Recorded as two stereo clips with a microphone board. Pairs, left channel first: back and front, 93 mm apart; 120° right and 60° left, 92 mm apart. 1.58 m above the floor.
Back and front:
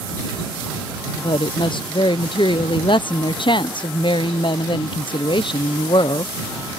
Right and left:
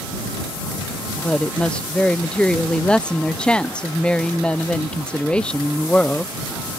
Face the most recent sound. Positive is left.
turn(degrees=160)